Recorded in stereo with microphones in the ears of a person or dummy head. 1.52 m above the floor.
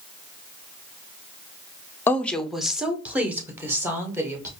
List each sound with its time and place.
2.1 s a woman speaking: 15° left (ahead or behind), 0.5 m; by 4.5 s 15° right (ahead or behind), 1.8 m